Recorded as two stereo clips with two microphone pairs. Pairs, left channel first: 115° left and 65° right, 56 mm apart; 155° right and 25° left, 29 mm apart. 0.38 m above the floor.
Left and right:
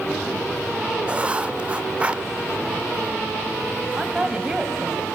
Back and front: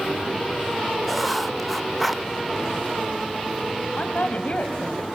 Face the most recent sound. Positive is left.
turn(degrees=-135)